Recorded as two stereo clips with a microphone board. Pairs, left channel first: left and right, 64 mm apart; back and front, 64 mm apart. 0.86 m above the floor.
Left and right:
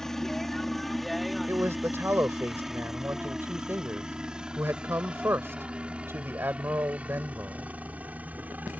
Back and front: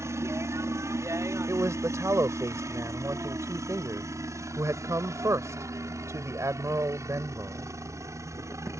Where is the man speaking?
40° right.